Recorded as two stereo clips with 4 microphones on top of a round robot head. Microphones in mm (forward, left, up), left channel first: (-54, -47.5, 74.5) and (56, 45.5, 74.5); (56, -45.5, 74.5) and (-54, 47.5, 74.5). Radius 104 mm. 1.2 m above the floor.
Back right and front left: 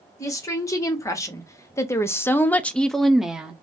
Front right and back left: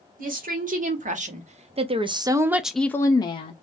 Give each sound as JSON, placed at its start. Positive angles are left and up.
{"t": 0.2, "sound": "a woman speaking", "azimuth_deg": 155, "distance_m": 1.4}